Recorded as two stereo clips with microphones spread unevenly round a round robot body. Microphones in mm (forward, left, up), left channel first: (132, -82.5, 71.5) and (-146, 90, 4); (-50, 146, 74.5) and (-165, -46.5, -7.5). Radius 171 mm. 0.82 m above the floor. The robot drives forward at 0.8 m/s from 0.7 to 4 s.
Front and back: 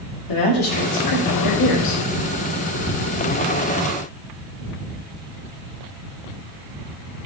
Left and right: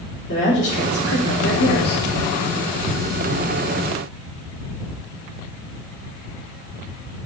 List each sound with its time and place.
0.3 s a woman speaking: straight ahead, 2 m; by 2.0 s 5° right, 1.0 m